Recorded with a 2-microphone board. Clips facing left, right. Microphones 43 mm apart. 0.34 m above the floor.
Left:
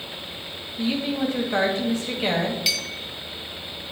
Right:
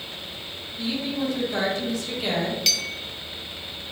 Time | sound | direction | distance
0.8 | a woman speaking | 35° left (ahead or behind) | 1.7 m
2.7 | a clink | 5° left (ahead or behind) | 1.0 m